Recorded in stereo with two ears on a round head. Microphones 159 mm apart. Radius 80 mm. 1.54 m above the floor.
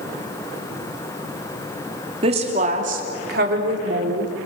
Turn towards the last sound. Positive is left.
turn(degrees=-65)  # may be behind; listen again after turning